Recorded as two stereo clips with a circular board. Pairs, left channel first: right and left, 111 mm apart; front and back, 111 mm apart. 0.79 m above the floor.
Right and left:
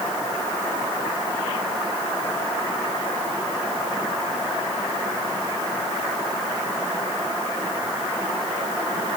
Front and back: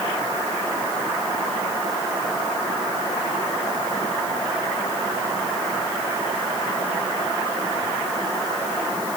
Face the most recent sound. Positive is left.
No sound to turn to.